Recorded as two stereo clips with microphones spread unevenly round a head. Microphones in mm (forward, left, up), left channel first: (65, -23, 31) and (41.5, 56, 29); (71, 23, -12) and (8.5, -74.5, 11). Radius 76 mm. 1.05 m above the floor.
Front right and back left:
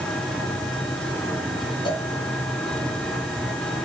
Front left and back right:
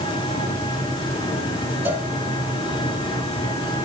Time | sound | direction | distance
0.0 | an engine running | 5° left | 3.5 m
1.9 | a cowbell | 55° right | 1.9 m